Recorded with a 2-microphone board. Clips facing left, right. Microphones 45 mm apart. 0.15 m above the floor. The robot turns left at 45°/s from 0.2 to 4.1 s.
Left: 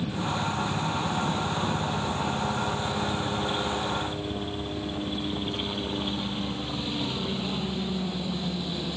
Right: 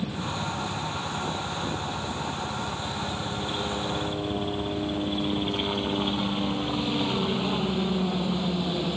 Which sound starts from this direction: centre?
A helicopter, at 0.0 s.